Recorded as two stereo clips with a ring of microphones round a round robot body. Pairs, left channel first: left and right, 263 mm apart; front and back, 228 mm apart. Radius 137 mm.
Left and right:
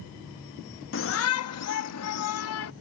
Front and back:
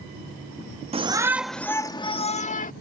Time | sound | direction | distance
0.9 | a shout | 120° left | ?